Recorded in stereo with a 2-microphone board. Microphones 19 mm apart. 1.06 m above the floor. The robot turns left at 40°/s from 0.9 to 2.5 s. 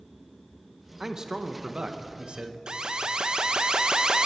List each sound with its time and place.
1.0 s a man speaking: 30° right, 0.9 m; by 2.6 s 90° right, 0.9 m
2.7 s an alarm: 40° right (ahead or behind), 0.6 m